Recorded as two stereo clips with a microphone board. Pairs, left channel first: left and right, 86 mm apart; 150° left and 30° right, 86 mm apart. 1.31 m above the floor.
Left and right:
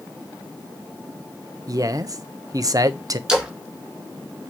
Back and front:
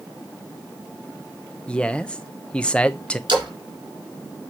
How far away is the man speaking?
About 0.9 m.